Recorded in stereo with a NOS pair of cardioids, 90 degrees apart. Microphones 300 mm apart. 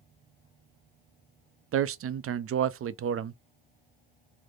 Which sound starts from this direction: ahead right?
A man speaking, at 1.7 s.